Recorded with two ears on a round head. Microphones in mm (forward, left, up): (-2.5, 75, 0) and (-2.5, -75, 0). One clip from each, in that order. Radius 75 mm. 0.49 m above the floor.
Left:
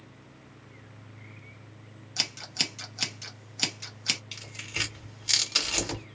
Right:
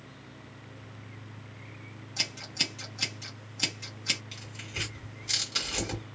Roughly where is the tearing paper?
Left.